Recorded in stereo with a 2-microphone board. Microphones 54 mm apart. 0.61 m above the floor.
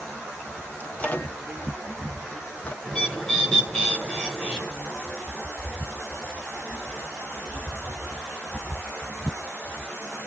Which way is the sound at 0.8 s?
25° left (ahead or behind).